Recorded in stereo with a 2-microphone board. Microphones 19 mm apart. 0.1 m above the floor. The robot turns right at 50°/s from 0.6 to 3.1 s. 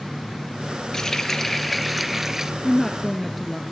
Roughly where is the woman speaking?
Centre.